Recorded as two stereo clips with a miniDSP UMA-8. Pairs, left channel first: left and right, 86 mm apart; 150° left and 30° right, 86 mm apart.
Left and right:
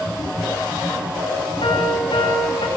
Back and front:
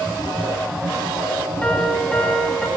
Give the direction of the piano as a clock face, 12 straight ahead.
10 o'clock.